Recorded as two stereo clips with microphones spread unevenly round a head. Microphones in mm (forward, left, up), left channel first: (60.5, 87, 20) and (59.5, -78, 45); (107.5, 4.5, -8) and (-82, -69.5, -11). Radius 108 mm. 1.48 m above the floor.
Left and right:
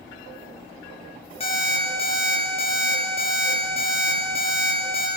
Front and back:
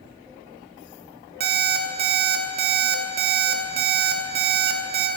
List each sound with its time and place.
1.4 s an alarm clock: 160° left, 1.6 m